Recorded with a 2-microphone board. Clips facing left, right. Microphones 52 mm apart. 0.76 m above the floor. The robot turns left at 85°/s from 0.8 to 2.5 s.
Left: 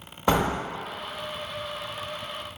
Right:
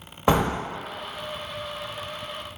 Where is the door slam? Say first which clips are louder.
Right 2 dB; 20° right (ahead or behind), 0.7 m.